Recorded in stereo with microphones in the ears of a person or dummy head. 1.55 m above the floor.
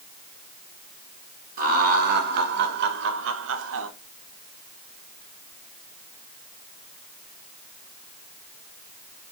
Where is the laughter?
50° right (ahead or behind), 2 m; by 3.9 s 80° right, 1.3 m.